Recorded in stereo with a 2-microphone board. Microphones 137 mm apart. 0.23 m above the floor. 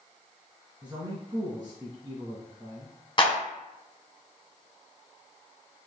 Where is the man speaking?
35° right (ahead or behind), 1.5 m.